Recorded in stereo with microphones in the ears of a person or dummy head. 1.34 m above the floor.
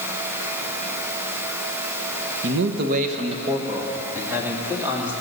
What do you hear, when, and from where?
2.4 s a man speaking: 75° right (ahead or behind), 1.2 m; by 5.1 s 10° right (ahead or behind), 3.5 m